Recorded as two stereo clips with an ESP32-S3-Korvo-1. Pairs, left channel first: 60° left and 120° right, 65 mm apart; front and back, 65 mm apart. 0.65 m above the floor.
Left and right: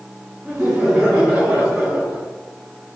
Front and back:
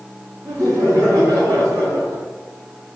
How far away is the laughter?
About 1.7 m.